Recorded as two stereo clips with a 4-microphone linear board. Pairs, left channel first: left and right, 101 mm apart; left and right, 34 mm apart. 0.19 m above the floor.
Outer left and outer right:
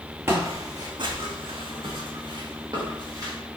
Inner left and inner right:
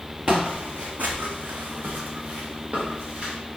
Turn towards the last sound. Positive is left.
turn(degrees=-40)  # may be behind; listen again after turning